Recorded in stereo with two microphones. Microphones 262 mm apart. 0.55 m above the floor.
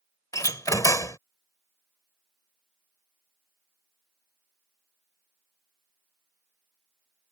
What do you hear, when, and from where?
0.3 s a door slam: 15° left (ahead or behind)